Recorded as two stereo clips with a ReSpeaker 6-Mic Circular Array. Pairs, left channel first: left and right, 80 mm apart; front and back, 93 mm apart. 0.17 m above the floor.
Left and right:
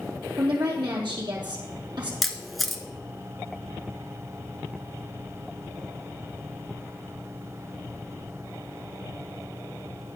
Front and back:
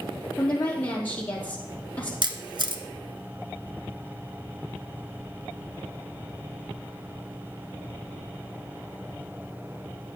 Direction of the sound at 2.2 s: Straight behind.